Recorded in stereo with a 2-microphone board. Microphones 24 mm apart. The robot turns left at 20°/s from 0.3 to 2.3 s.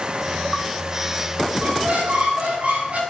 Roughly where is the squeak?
Right.